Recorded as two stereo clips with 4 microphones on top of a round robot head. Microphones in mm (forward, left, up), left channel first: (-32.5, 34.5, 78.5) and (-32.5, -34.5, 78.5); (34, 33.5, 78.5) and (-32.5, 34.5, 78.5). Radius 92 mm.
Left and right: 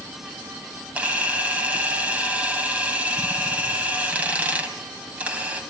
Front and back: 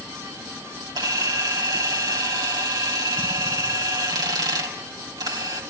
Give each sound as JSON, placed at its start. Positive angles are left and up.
{"t": 0.9, "sound": "a camera shutter", "azimuth_deg": -160, "distance_m": 3.0}